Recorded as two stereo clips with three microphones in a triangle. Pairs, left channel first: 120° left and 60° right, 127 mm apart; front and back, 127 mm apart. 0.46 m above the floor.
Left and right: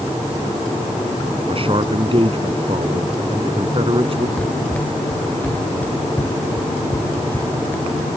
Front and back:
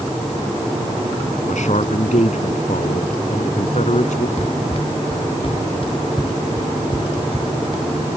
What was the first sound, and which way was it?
A man speaking, 20° right.